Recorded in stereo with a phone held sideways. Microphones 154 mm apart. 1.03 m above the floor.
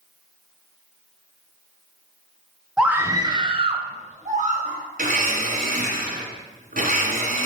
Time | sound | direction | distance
2.8 | a scream | 5° right (ahead or behind) | 0.7 m
5.0 | a blender | 70° right (ahead or behind) | 2 m